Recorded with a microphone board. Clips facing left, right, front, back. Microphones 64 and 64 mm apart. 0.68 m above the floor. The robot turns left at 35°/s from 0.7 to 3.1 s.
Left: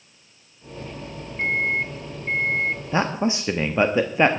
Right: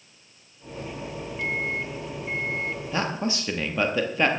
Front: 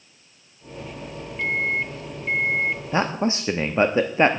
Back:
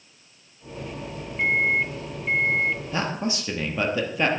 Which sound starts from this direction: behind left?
A microwave, at 1.4 s.